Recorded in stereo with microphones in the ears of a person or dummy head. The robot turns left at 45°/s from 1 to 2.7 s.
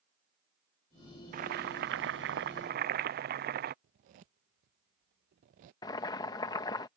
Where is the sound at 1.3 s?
60° right; by 3.7 s 120° right.